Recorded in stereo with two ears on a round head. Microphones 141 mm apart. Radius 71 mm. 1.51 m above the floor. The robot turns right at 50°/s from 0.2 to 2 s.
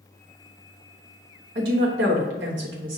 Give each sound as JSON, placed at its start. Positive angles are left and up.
{"t": 1.6, "sound": "a woman speaking", "side_deg": -75, "distance_m": 1.1}